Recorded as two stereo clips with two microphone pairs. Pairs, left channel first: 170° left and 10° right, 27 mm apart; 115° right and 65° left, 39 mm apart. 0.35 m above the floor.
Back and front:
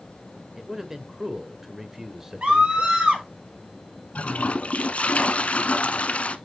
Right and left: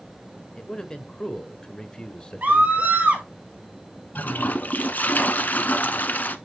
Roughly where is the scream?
Ahead.